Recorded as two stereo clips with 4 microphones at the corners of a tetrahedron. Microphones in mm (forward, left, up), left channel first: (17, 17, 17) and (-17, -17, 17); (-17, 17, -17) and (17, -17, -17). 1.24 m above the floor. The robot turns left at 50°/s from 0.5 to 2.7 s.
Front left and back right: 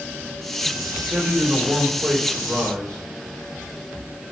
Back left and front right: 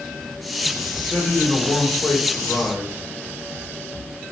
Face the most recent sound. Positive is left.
turn(degrees=115)